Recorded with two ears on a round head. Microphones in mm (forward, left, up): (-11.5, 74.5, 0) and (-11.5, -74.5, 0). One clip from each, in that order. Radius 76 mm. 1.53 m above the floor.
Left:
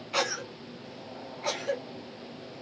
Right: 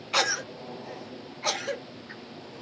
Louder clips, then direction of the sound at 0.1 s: Right 4 dB; 25° right (ahead or behind).